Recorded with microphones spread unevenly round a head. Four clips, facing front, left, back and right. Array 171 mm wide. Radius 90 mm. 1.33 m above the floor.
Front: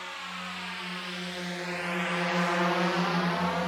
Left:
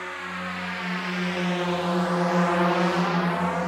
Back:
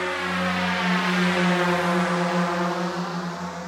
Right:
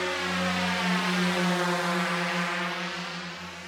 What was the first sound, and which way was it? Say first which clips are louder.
A drone: right 4 dB, back 14 dB; 160° right.